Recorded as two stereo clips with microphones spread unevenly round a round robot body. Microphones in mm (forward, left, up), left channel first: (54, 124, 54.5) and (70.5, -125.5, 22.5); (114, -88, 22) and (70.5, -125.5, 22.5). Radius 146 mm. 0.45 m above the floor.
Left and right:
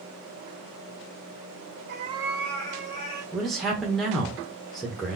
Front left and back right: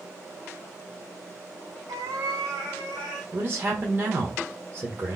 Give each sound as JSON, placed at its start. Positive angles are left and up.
{"t": 1.9, "sound": "a cat meowing", "azimuth_deg": -145, "distance_m": 0.6}
{"t": 3.3, "sound": "a man speaking", "azimuth_deg": -170, "distance_m": 0.9}